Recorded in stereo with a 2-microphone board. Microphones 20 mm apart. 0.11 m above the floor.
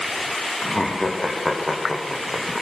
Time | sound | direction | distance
0.6 | laughter | 15° left (ahead or behind) | 5.5 m